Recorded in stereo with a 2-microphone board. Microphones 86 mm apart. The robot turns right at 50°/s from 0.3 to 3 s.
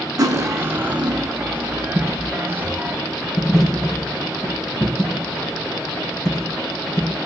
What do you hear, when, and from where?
0.2 s cutlery clinking: 50° right, 0.9 m; by 1.4 s 5° left, 0.9 m
1.9 s a dropped coin: 5° right (ahead or behind), 2.5 m; by 7.2 s 50° left (ahead or behind), 2.5 m